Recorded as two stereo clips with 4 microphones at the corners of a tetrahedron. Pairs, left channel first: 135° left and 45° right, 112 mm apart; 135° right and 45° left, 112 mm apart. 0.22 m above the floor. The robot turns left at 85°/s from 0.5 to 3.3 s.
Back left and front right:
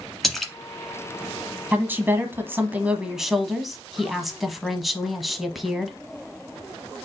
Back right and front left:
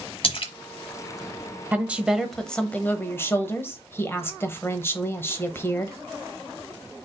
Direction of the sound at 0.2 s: 135° right.